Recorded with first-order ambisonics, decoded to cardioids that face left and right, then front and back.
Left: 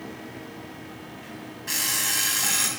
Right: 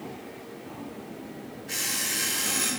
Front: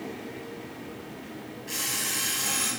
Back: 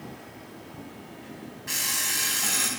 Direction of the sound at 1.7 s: 115° left.